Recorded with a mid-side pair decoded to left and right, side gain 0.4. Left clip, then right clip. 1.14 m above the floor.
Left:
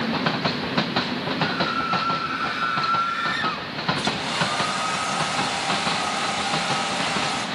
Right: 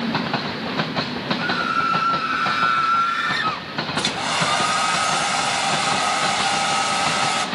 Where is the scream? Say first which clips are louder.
Right 4 dB; 55° right, 3 m; by 3.7 s 25° right, 1.5 m.